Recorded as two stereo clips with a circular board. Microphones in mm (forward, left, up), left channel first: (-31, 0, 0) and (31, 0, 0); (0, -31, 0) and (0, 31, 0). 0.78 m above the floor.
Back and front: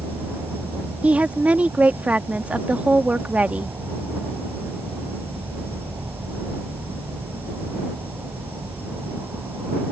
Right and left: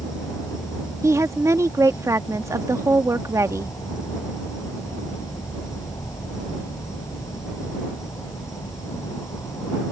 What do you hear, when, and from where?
0.0 s an insect: 55° right
1.0 s a woman speaking: 65° left